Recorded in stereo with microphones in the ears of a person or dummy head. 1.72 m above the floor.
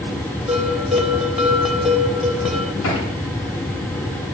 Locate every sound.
0.5 s a bell: 5° right (ahead or behind), 3 m
2.8 s a thud: 80° left, 8 m